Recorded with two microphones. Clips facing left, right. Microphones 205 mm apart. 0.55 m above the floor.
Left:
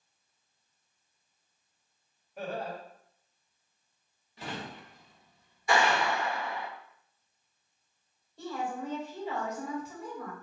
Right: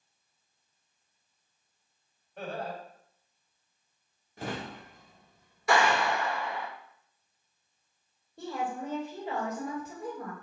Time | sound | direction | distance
2.4 | laughter | 5° left (ahead or behind) | 2 m
4.4 | a drawer | 50° right (ahead or behind) | 0.7 m
5.7 | a clap | 70° right (ahead or behind) | 1.8 m
8.4 | a woman speaking | 50° right (ahead or behind) | 1.9 m